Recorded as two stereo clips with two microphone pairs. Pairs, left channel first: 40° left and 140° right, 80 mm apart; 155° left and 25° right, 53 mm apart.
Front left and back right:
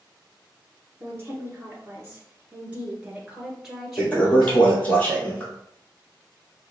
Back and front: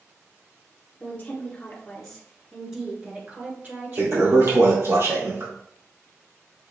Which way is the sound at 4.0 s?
25° right.